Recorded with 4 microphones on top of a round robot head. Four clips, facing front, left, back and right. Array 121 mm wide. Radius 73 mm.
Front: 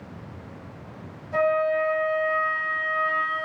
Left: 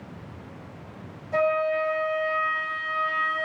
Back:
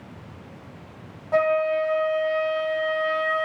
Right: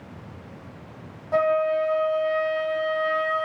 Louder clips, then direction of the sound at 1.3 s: Right 2 dB, back 1 dB; 145° right.